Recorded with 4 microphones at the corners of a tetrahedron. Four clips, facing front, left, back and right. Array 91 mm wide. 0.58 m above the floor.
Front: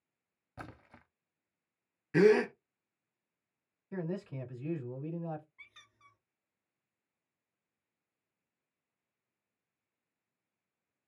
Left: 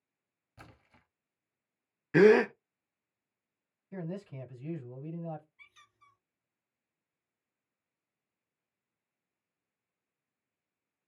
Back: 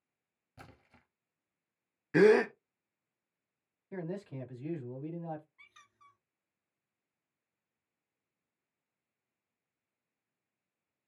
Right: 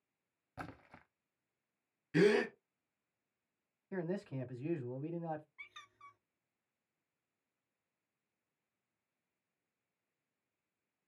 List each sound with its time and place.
0.6 s a splash: 45° right, 0.7 m
2.1 s a gasp: 120° left, 0.5 m
3.9 s a man speaking: 105° right, 1.9 m
5.6 s a squeak: 75° right, 1.3 m